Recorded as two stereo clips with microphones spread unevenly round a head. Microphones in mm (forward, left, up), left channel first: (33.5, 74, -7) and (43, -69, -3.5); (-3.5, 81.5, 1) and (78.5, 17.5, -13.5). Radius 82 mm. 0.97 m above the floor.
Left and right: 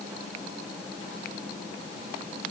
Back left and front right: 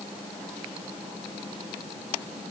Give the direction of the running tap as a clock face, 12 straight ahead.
No running tap in this recording.